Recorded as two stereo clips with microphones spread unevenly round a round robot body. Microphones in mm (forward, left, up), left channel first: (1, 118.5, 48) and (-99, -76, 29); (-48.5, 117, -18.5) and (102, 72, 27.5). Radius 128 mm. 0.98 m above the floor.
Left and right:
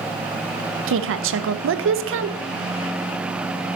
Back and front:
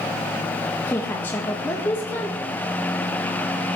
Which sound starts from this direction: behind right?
A woman speaking, at 0.9 s.